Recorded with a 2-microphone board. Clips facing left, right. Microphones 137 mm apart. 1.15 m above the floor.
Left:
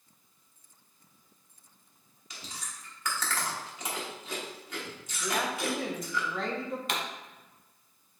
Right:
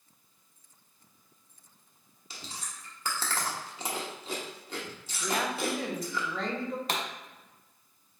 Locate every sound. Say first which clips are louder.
2.3 s chewing: right 1 dB; 30° right (ahead or behind), 1.1 m
5.2 s a woman speaking: right 1 dB; centre (ahead or behind), 0.9 m
6.9 s a pop: even; 35° right (ahead or behind), 0.9 m